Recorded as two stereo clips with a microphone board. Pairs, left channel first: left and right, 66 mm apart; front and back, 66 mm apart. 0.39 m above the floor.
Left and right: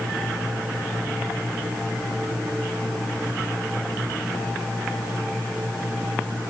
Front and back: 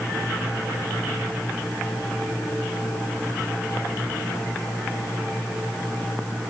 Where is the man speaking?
I don't hear a man speaking.